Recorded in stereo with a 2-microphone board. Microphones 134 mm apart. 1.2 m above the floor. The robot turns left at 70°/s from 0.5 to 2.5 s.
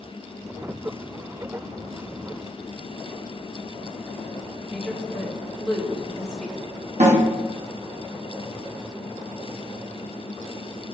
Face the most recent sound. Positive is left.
turn(degrees=-60)  # may be behind; listen again after turning